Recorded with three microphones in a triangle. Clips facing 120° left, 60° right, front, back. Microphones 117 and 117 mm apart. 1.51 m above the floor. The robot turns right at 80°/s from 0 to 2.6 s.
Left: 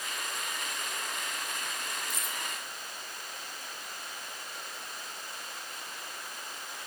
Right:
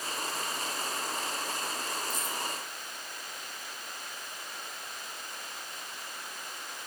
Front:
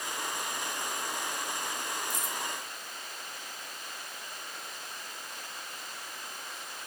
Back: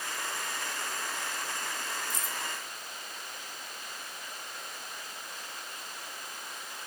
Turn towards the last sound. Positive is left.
turn(degrees=145)